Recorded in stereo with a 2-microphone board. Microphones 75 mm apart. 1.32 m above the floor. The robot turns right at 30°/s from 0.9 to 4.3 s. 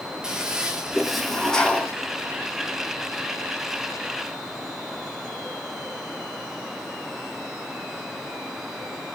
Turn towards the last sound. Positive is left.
turn(degrees=90)